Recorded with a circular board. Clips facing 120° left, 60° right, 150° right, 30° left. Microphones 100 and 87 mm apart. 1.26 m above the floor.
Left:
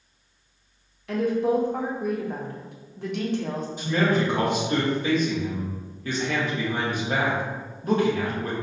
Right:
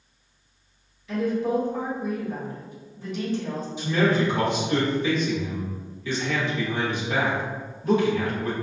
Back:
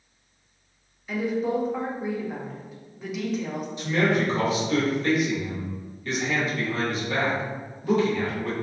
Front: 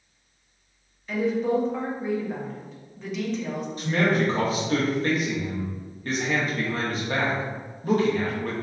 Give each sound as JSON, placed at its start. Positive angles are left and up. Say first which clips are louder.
{"t": 1.1, "sound": "a woman speaking", "louder": "left 2 dB, front 2 dB", "azimuth_deg": 125, "distance_m": 0.6}
{"t": 3.8, "sound": "a man speaking", "louder": "right 1 dB, even", "azimuth_deg": 75, "distance_m": 0.8}